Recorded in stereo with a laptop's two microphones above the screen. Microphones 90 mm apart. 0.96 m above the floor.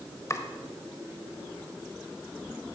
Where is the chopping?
35° left (ahead or behind), 0.9 m.